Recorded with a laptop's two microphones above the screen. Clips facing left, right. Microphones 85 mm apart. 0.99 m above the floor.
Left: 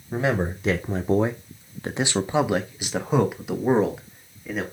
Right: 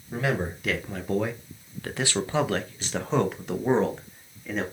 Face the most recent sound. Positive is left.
turn(degrees=5)  # may be behind; listen again after turning